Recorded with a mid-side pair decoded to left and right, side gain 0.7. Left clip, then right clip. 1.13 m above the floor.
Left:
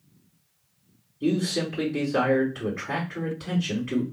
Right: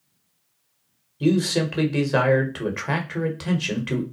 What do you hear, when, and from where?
1.2 s a man speaking: 70° right, 1.0 m